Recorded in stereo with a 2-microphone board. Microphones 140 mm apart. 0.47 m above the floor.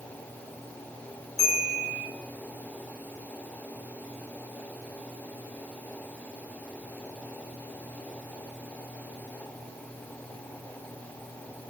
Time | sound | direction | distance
1.4 | a bell | centre (ahead or behind) | 1.1 m